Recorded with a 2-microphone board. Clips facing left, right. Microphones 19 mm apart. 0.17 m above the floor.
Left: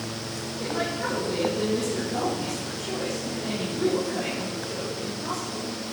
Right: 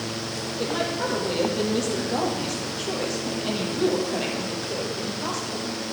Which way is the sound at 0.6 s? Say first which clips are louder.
Right 2 dB; 35° right (ahead or behind).